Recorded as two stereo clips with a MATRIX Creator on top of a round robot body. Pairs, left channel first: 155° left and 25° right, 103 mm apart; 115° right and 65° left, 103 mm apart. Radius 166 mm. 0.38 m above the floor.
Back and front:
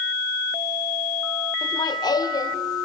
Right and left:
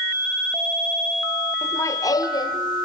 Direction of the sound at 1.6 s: 170° right.